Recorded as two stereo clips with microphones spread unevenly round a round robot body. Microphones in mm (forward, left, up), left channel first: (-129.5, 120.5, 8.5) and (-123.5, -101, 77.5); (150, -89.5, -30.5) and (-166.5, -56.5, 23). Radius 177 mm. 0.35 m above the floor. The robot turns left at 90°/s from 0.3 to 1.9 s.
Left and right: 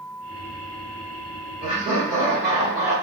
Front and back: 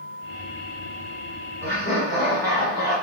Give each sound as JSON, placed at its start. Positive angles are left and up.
{"t": 1.6, "sound": "laughter", "azimuth_deg": 50, "distance_m": 1.5}